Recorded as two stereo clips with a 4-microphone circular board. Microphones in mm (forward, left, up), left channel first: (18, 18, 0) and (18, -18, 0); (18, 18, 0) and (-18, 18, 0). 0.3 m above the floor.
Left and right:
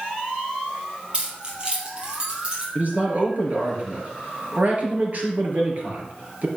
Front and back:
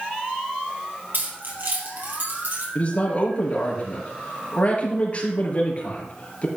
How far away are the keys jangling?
About 4 m.